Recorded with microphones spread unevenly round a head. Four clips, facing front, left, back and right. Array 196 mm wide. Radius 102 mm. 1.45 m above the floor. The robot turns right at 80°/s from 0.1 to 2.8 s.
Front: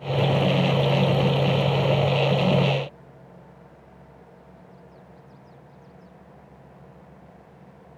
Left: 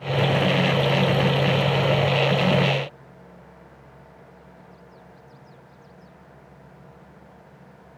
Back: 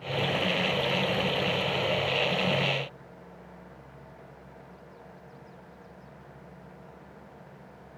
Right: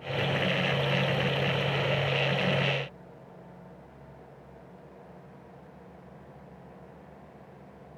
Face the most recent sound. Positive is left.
No sound to turn to.